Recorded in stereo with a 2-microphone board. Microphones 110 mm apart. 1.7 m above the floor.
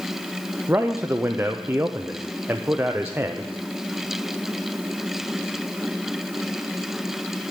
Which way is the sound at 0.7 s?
20° right (ahead or behind).